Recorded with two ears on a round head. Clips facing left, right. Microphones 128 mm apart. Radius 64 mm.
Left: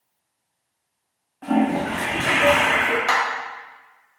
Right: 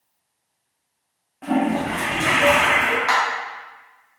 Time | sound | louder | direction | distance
1.4 | a toilet flushing | even | 15° right (ahead or behind) | 1.5 m
3.1 | a clap | right 2 dB | 30° left (ahead or behind) | 1.1 m